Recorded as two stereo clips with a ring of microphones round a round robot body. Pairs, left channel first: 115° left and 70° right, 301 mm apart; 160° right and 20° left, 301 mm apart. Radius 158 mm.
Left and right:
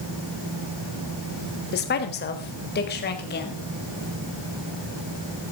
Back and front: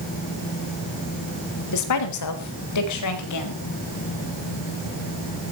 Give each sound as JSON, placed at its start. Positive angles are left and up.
{"t": 1.7, "sound": "a woman speaking", "azimuth_deg": 170, "distance_m": 3.5}